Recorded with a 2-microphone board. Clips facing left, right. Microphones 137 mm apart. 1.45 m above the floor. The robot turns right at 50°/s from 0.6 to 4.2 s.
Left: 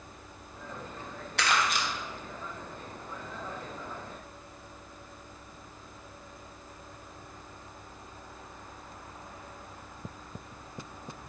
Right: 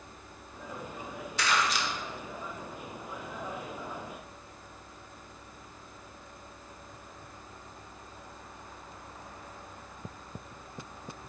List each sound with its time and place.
1.4 s crumpling: 65° left (ahead or behind), 1.4 m; by 1.9 s 50° left (ahead or behind), 1.4 m